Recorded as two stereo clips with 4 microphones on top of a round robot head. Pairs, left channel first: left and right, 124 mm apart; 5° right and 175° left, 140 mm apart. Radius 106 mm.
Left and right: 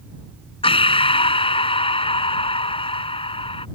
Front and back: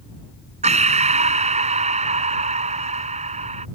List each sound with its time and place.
0.6 s breathing: 135° left